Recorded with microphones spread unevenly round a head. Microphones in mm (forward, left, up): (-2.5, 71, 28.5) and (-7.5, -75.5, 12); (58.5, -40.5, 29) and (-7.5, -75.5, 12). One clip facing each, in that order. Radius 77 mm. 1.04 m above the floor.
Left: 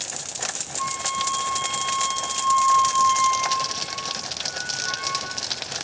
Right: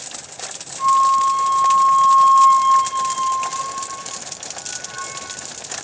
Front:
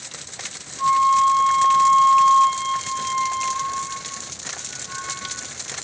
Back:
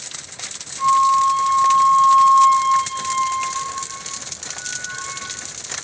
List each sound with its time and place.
0.8 s a flute: 120° left, 1.4 m